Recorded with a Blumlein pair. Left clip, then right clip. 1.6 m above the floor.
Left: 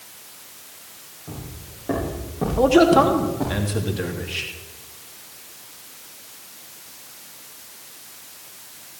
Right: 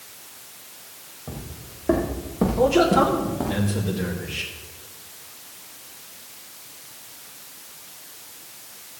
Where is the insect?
No insect in this recording.